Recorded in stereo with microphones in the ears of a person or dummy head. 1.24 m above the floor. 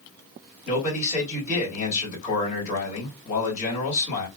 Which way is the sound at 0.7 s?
45° left (ahead or behind).